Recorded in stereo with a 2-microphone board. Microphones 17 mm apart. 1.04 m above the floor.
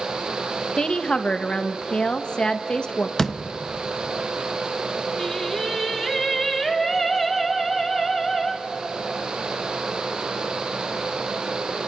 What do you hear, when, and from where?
0.8 s a woman speaking: 60° left (ahead or behind), 1.3 m
3.2 s a door slam: 20° left (ahead or behind), 0.8 m
5.2 s singing: 20° left (ahead or behind), 2 m